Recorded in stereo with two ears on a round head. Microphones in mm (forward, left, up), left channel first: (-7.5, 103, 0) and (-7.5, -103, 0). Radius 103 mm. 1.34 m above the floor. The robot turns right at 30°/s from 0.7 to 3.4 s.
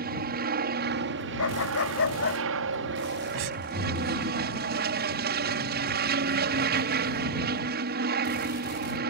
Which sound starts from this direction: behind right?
An aircraft, at 0.0 s.